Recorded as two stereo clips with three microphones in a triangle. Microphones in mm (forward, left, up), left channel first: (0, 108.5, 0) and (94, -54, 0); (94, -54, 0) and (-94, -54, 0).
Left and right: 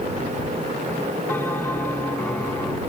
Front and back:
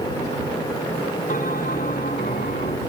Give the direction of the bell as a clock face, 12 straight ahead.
11 o'clock.